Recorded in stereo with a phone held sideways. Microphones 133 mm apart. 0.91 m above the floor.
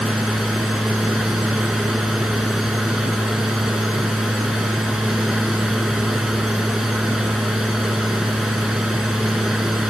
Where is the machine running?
5° right (ahead or behind).